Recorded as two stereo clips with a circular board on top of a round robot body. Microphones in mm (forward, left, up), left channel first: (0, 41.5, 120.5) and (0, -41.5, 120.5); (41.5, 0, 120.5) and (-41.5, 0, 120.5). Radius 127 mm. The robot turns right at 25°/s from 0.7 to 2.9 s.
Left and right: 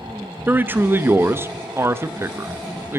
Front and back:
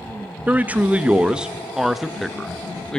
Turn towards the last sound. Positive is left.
turn(degrees=-75)